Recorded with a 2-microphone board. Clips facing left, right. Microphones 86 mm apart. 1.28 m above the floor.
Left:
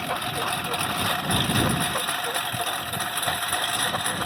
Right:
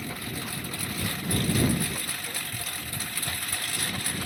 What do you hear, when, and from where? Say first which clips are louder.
0.0 s a lawn mower: left 8 dB; 60° left (ahead or behind); by 4.3 s 50° left (ahead or behind)